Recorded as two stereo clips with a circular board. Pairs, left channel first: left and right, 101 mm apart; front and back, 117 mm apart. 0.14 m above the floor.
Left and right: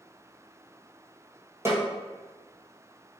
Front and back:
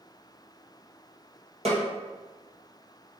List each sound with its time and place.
1.6 s a snare drum: 155° right, 1.6 m